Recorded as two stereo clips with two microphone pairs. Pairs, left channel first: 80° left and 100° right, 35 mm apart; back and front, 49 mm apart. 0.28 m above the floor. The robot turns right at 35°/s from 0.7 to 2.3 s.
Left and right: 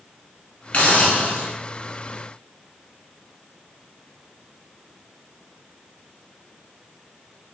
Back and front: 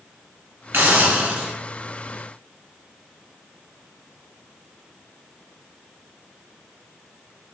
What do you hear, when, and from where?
0.7 s a hiss: 40° left, 0.9 m; by 1.5 s 70° left, 0.9 m